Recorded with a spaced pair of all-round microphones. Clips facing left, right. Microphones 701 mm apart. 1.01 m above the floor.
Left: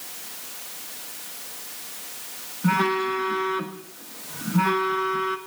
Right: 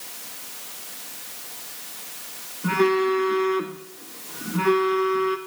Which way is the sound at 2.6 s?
25° left (ahead or behind).